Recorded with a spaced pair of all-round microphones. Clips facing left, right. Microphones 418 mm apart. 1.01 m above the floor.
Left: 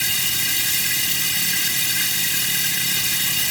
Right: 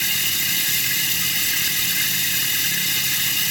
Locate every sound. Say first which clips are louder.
0.0 s running water: even; 65° left (ahead or behind)